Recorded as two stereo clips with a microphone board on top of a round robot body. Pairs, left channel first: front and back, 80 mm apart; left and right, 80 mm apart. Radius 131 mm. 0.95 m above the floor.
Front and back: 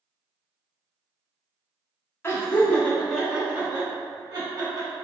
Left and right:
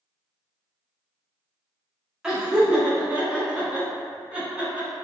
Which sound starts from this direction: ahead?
Laughter, at 2.2 s.